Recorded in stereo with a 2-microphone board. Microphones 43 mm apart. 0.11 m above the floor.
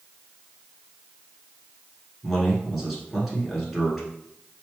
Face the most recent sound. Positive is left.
turn(degrees=-5)  # may be behind; listen again after turning